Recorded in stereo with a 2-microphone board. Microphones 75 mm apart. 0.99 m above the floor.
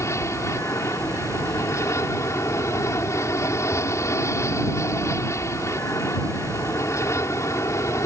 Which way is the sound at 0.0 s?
40° left (ahead or behind).